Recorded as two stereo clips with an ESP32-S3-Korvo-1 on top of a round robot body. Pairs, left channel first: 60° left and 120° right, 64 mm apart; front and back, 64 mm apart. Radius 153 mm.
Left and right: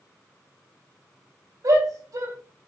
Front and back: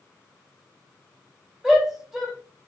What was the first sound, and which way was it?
A shout, 95° right.